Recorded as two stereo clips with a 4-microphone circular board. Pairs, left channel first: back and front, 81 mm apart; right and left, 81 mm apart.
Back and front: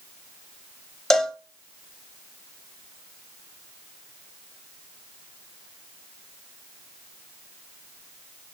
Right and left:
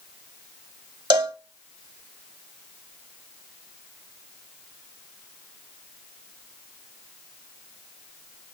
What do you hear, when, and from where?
1.1 s a cowbell: 95° left, 0.8 m